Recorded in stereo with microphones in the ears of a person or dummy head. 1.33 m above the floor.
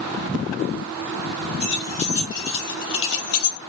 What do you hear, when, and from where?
1.6 s keys jangling: 45° left (ahead or behind), 2 m; by 3.6 s 70° left (ahead or behind), 0.5 m